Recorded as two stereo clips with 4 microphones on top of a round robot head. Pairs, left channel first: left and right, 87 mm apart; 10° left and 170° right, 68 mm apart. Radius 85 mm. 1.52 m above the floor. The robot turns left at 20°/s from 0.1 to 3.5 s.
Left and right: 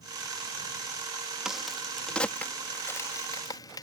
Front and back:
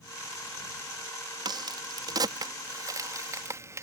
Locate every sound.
1.4 s a crack: 175° right; by 3.8 s 145° left